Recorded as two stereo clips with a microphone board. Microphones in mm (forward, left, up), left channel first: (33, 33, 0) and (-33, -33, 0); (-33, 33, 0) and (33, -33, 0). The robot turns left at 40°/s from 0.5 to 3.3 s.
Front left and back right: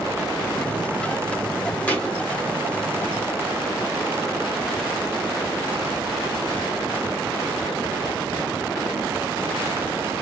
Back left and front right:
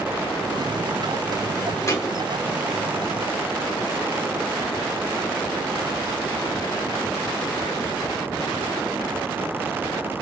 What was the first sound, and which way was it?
A thud, 110° left.